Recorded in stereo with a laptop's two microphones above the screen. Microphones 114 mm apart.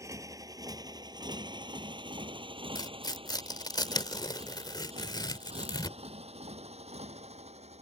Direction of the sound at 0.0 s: 25° right (ahead or behind).